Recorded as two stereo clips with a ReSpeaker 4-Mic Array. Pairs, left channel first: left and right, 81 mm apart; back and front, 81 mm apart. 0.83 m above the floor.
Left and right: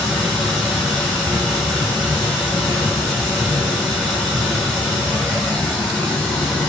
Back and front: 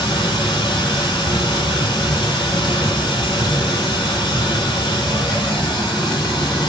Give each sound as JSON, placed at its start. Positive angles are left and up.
{"t": 0.0, "sound": "running water", "azimuth_deg": 180, "distance_m": 1.5}